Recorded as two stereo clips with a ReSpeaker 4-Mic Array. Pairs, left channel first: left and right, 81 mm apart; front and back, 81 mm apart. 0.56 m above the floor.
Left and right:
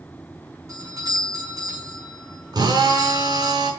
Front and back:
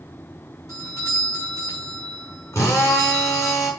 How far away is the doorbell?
About 5.5 m.